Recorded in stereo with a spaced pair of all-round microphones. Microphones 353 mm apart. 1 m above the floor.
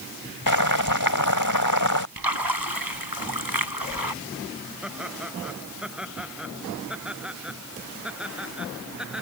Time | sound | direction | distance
0.5 | boiling | 65° left (ahead or behind) | ?
2.2 | a splash | 80° right | ?
4.8 | laughter | 5° right (ahead or behind) | ?